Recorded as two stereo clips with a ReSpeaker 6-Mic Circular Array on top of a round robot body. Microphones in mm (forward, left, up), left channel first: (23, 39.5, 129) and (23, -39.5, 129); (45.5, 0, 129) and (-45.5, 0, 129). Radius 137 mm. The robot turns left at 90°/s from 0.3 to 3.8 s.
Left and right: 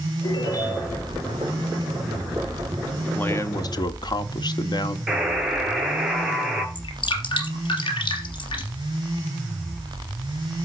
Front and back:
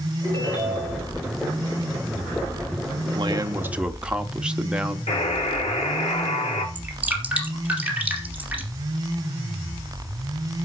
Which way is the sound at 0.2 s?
70° left.